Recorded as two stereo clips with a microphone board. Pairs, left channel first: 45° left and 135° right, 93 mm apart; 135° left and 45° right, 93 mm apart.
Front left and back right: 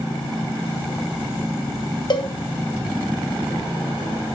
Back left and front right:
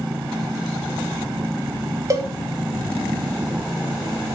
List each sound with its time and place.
2.1 s a cowbell: 10° left, 1.3 m